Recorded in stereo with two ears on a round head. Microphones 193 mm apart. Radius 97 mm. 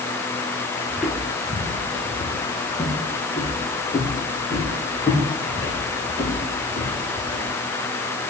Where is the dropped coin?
I don't hear a dropped coin.